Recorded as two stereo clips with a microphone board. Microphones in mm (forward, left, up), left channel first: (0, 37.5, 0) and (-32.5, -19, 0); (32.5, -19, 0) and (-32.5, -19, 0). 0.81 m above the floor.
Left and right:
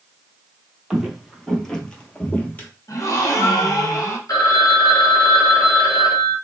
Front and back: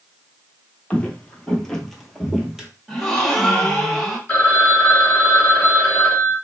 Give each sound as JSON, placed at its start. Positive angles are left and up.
{"t": 0.9, "sound": "footsteps", "azimuth_deg": -50, "distance_m": 0.9}
{"t": 2.9, "sound": "a gasp", "azimuth_deg": 85, "distance_m": 0.9}
{"t": 4.3, "sound": "a phone ringing", "azimuth_deg": 65, "distance_m": 1.2}